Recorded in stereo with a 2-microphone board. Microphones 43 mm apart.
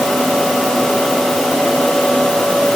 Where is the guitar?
No guitar in this recording.